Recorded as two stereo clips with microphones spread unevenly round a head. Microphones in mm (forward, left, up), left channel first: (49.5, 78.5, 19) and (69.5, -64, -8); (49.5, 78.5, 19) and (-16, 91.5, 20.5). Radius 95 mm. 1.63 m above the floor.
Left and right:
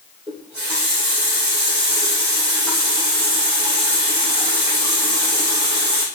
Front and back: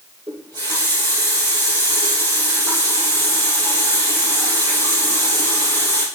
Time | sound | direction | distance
0.3 | a running tap | 165° right | 3.5 m